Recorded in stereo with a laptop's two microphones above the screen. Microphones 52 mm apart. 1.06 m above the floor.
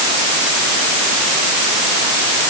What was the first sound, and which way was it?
Only background noise.